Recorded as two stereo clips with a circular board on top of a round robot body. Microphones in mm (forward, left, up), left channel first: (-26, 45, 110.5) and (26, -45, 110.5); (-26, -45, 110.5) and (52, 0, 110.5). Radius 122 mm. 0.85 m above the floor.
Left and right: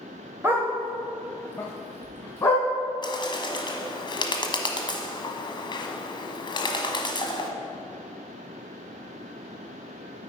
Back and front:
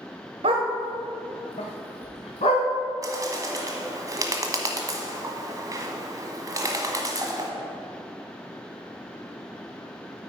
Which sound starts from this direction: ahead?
A dog barking, at 0.4 s.